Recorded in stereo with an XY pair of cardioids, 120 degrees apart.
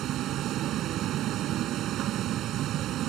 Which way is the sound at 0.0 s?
70° right.